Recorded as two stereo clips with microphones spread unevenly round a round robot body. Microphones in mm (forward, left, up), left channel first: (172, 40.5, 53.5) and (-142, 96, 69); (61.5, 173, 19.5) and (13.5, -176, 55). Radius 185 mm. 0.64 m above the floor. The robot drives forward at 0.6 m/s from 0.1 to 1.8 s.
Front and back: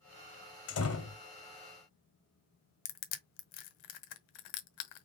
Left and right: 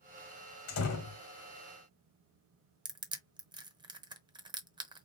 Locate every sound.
0.7 s a door slam: 30° left, 2.5 m; by 1.2 s 35° left, 2 m
2.9 s crushing: 20° right, 1.2 m